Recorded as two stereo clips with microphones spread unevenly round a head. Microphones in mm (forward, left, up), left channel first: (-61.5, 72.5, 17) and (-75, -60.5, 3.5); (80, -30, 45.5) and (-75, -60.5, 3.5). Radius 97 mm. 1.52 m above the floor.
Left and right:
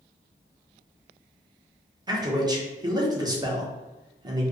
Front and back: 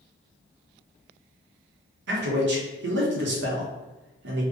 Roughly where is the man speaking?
Behind.